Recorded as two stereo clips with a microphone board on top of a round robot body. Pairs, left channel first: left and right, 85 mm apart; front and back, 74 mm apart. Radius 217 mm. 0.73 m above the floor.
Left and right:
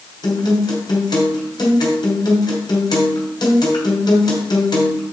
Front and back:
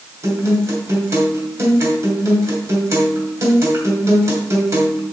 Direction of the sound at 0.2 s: 130° left.